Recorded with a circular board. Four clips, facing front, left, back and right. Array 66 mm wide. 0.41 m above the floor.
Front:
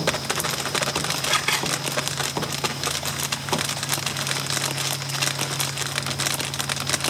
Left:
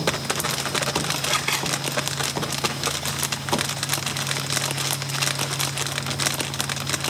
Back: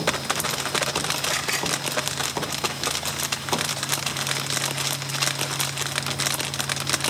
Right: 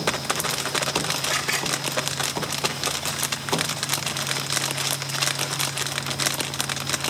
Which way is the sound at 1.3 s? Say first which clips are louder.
Left 2 dB, front 6 dB; 40° left.